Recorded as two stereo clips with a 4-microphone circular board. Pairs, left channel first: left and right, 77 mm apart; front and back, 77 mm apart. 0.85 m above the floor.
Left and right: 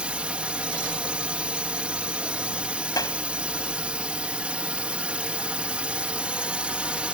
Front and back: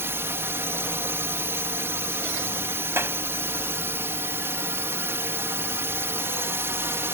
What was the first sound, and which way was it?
A drone, 155° right.